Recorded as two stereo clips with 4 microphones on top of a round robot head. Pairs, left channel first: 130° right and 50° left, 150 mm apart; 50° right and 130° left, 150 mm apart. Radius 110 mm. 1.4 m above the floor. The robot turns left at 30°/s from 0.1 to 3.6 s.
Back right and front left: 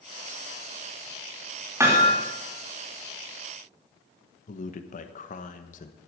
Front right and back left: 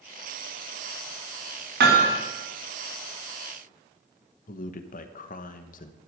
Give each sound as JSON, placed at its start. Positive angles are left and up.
{"t": 1.8, "sound": "hammering", "azimuth_deg": 125, "distance_m": 3.0}
{"t": 4.5, "sound": "a man speaking", "azimuth_deg": -90, "distance_m": 1.1}